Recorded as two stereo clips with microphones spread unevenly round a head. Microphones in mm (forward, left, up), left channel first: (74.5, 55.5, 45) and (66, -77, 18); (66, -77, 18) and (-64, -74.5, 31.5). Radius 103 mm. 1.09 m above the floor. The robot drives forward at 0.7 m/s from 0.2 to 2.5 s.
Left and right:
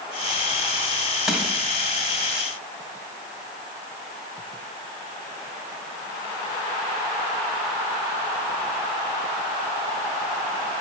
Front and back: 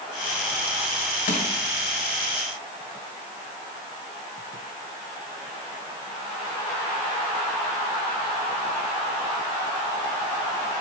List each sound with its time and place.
1.3 s crushing: straight ahead, 1.7 m